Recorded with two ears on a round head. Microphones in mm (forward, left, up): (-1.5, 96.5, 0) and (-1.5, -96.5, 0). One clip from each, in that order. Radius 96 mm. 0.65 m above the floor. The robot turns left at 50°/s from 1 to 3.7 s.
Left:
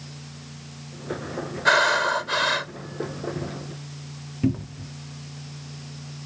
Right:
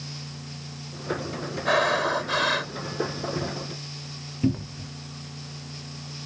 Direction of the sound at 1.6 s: 60° left.